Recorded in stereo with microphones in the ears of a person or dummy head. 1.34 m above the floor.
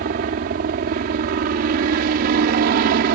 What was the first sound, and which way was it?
A helicopter, 40° right (ahead or behind).